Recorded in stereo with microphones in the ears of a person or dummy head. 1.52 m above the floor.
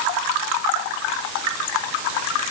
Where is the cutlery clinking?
No cutlery clinking in this recording.